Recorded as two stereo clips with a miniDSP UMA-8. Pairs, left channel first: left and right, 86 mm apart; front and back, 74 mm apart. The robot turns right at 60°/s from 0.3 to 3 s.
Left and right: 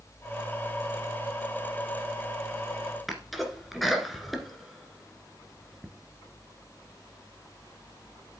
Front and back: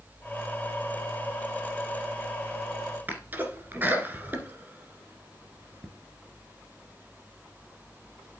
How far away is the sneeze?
About 1.7 m.